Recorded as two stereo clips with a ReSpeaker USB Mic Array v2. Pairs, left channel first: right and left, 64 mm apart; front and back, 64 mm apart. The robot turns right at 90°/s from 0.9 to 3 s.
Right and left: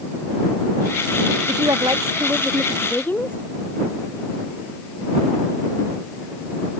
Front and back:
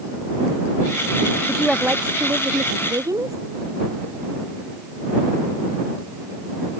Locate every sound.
1.5 s a woman speaking: 75° left; by 3.4 s 150° right